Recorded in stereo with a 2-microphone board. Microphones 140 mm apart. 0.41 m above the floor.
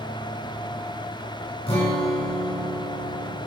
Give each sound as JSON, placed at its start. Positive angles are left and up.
{"t": 1.7, "sound": "a guitar", "side_deg": 45, "distance_m": 6.5}